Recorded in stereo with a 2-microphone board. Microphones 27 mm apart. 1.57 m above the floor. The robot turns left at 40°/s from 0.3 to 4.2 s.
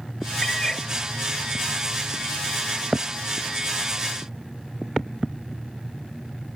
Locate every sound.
0.4 s a cat meowing: 20° left (ahead or behind); by 0.9 s 30° left (ahead or behind)